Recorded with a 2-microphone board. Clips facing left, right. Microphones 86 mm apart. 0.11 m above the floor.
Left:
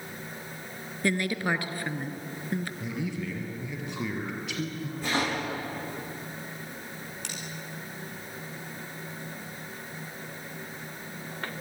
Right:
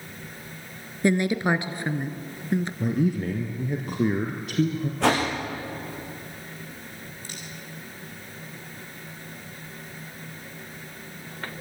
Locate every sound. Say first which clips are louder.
1.0 s a woman speaking: right 6 dB; 20° right (ahead or behind), 1.3 m
2.8 s a man speaking: right 9 dB; 45° right (ahead or behind), 2 m
5.0 s a whoosh: right 7 dB; 80° right, 7 m
7.2 s cutlery clinking: left 1 dB; 80° left, 4 m